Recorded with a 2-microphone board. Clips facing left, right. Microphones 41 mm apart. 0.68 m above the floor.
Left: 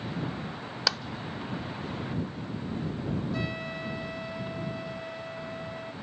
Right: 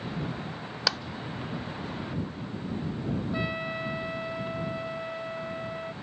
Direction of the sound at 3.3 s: 20° right (ahead or behind).